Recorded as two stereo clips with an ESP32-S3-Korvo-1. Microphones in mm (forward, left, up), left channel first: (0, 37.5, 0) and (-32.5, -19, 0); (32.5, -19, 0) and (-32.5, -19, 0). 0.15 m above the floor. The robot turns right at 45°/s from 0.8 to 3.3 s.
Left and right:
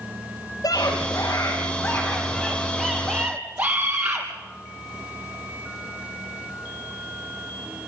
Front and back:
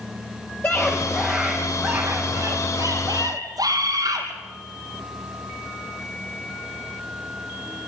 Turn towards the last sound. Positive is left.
turn(degrees=170)